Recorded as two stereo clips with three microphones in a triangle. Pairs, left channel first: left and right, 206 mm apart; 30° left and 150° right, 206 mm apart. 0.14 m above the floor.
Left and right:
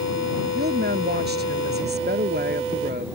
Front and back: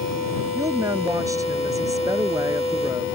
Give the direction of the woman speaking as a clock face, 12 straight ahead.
3 o'clock.